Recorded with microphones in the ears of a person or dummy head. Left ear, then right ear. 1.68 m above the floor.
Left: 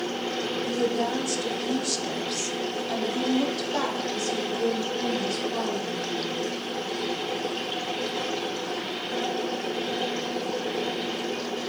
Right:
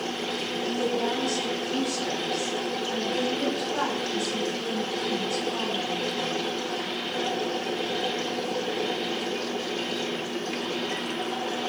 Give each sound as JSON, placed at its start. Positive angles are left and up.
{"t": 0.6, "sound": "a woman speaking", "side_deg": 40, "distance_m": 1.2}